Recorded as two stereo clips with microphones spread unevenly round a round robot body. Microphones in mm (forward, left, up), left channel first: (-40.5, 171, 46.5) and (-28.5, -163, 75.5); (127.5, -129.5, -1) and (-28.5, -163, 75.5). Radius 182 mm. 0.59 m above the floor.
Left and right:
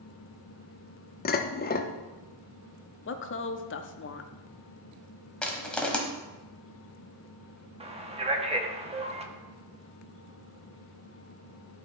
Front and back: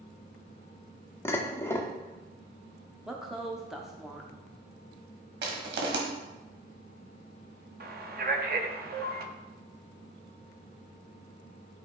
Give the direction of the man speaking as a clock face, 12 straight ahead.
5 o'clock.